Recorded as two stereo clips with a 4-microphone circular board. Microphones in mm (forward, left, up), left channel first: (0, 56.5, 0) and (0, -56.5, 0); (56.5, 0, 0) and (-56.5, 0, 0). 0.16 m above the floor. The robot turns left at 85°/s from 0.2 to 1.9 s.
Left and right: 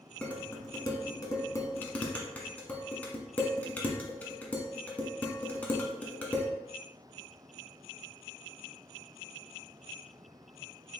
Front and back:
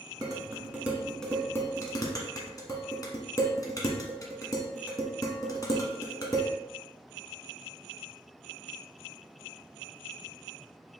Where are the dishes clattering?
165° left, 1.0 m; by 6.5 s 20° left, 1.0 m.